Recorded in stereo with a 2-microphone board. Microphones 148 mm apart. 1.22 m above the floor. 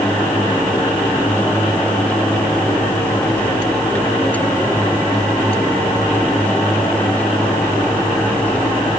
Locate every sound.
Only background noise.